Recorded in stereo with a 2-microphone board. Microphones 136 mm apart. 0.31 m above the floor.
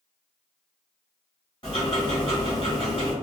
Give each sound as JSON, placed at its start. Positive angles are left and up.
{"t": 1.6, "sound": "ticking", "side_deg": 40, "distance_m": 1.3}